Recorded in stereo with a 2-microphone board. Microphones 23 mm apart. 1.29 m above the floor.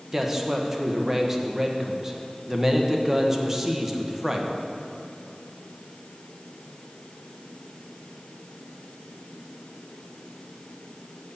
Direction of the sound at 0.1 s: 15° right (ahead or behind).